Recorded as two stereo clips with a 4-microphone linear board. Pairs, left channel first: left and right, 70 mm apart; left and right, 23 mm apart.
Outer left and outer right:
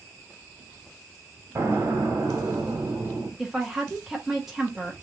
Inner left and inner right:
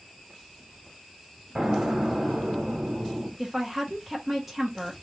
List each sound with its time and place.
1.6 s an explosion: 45° right (ahead or behind), 1.4 m
3.4 s a woman speaking: 5° right (ahead or behind), 1.0 m